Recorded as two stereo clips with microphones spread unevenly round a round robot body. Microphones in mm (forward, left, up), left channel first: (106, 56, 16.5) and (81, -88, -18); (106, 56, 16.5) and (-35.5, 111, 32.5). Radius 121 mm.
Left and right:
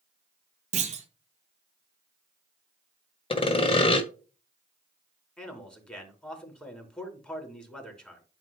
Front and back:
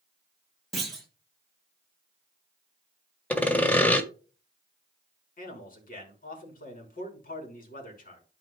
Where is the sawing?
40° left, 1.5 m.